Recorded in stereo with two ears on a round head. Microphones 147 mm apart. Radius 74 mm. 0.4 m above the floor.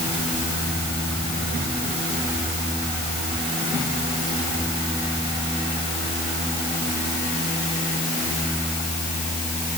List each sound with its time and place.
Only background noise.